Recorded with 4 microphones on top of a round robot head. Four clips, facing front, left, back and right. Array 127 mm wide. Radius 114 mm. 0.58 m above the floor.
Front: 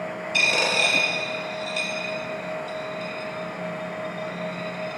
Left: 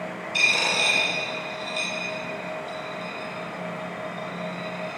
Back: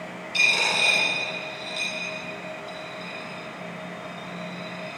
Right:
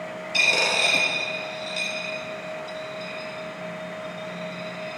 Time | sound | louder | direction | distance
0.3 | a dropped coin | right 2 dB, front 2 dB | 50° right | 4 m